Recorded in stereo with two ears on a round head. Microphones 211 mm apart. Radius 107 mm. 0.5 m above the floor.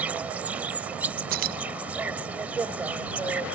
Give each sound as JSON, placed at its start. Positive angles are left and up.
{"t": 0.0, "sound": "an insect", "side_deg": -5}
{"t": 1.3, "sound": "keys jangling", "side_deg": -40}